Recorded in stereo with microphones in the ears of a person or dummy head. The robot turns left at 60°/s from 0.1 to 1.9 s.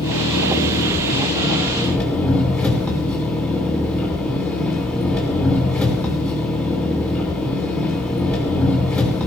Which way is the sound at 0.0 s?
120° left.